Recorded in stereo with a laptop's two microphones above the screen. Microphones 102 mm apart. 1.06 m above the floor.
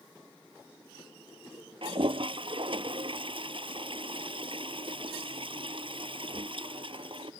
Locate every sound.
1.8 s a toilet flushing: 60° right (ahead or behind)